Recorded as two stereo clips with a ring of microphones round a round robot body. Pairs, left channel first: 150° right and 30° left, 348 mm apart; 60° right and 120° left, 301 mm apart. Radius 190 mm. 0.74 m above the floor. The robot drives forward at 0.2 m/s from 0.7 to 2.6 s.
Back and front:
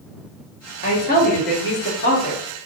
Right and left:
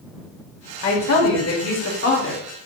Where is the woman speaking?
85° right, 1.6 m; by 2.4 s 95° right, 1.6 m.